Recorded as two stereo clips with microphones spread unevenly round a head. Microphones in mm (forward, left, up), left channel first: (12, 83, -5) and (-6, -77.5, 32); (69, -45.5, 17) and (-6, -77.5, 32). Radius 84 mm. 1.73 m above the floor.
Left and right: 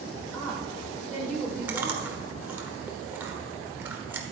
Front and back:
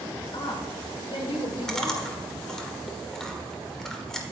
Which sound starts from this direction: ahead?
A woman speaking, at 0.3 s.